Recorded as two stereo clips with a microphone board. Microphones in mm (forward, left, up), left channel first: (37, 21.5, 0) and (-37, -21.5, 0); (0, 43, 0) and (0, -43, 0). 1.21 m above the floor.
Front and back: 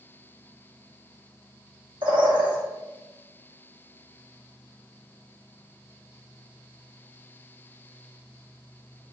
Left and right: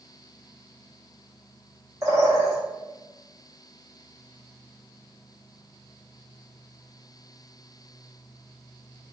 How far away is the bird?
About 1.0 m.